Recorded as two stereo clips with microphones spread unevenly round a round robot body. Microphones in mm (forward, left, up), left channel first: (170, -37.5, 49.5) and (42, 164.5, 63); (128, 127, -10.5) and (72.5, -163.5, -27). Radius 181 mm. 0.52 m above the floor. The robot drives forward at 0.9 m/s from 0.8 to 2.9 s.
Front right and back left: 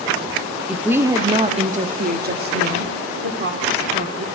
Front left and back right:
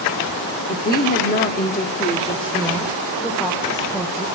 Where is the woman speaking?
35° left, 1.3 m; by 4.2 s 160° left, 1.7 m.